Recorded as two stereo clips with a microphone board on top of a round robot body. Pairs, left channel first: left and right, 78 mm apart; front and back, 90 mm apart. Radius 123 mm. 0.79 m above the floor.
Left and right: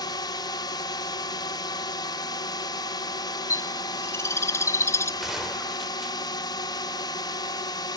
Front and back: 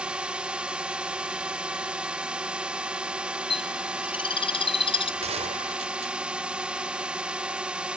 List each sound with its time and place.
0.0 s a drone: 100° left
3.5 s a bird: 30° left
5.2 s a gunshot: 175° right